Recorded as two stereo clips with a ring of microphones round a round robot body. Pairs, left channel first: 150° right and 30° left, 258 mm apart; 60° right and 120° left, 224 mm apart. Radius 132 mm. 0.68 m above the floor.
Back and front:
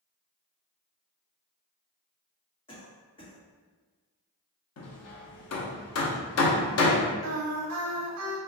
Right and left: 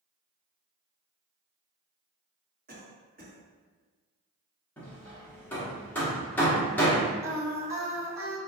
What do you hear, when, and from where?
2.7 s a cough: 150° left, 1.3 m
4.8 s hammering: 140° right, 0.8 m
7.2 s singing: 45° left, 0.8 m